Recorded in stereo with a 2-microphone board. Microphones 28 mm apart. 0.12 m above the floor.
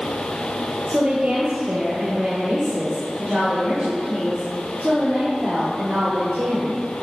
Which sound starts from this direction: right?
A woman speaking, at 0.9 s.